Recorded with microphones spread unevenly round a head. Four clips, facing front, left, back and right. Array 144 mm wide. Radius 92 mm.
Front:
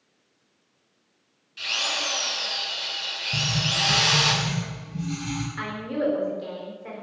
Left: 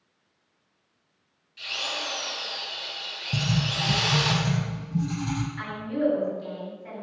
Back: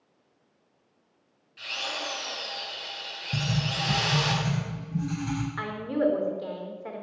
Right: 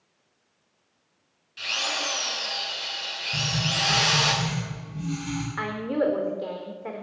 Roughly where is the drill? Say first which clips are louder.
Right 3 dB, front 3 dB; ahead right.